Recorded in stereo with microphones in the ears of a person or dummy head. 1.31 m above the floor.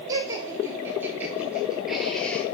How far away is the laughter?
About 3.5 m.